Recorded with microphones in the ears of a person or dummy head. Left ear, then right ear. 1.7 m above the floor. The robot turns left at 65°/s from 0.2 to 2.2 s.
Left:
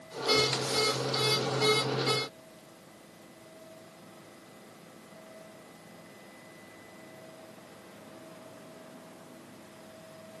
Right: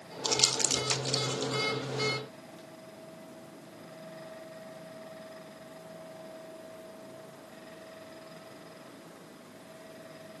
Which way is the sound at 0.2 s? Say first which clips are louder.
Left 1 dB; 55° right (ahead or behind).